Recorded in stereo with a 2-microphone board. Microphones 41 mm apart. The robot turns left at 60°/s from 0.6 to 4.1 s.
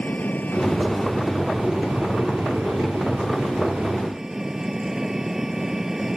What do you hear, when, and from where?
0.0 s an engine running: 40° left; by 6.2 s 170° right